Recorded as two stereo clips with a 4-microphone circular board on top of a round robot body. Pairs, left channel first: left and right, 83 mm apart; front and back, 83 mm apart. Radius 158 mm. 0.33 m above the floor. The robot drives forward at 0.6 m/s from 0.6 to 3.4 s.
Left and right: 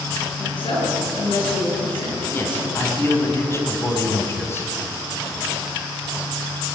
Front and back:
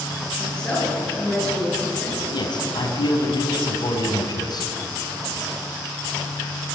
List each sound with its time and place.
0.4 s a woman speaking: 80° left, 9.5 m; by 2.2 s 85° left, 9.5 m
2.3 s a man speaking: 25° left, 4.5 m; by 4.7 s 30° left, 4 m